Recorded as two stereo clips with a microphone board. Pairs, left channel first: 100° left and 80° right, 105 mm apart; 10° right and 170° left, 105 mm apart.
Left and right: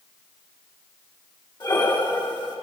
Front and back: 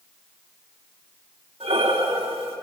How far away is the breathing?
About 4 m.